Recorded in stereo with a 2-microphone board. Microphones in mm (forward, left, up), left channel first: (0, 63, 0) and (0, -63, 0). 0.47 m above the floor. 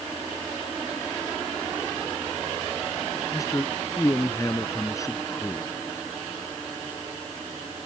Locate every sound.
3.3 s a man speaking: 25° left (ahead or behind)